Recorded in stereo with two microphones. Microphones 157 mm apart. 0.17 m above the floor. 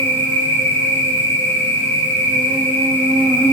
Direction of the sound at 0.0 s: 15° left (ahead or behind).